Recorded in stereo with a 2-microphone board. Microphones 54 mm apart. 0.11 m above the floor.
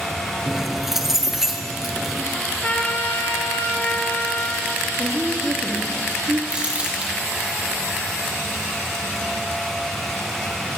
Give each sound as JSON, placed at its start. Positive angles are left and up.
{"t": 0.5, "sound": "keys jangling", "side_deg": -5, "distance_m": 1.5}
{"t": 2.3, "sound": "a trumpet", "side_deg": 30, "distance_m": 4.0}
{"t": 5.0, "sound": "a woman speaking", "side_deg": -55, "distance_m": 4.5}
{"t": 6.5, "sound": "crumpling", "side_deg": -25, "distance_m": 3.5}